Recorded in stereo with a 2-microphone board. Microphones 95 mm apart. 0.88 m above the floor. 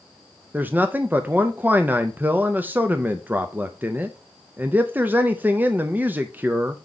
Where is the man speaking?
20° right (ahead or behind), 0.5 m.